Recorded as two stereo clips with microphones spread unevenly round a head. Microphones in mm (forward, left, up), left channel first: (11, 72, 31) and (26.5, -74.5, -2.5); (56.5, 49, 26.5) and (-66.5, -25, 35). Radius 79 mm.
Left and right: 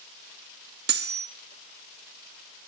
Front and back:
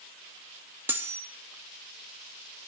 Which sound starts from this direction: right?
Cutlery clinking, at 0.9 s.